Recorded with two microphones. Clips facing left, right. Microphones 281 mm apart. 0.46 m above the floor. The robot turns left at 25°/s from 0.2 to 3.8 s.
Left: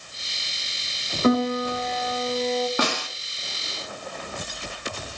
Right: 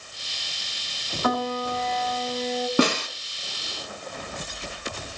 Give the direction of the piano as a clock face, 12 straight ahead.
11 o'clock.